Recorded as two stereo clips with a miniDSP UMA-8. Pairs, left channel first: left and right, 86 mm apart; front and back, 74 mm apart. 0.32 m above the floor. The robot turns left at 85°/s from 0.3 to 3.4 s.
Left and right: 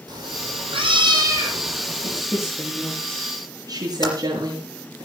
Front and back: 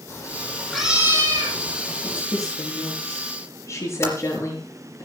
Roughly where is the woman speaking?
Left.